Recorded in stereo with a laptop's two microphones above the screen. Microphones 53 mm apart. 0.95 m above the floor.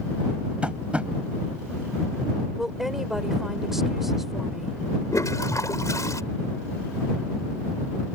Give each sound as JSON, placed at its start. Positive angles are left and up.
{"t": 0.6, "sound": "tapping", "side_deg": -20}
{"t": 2.6, "sound": "a woman speaking", "side_deg": -5}
{"t": 5.1, "sound": "a toilet flushing", "side_deg": 80}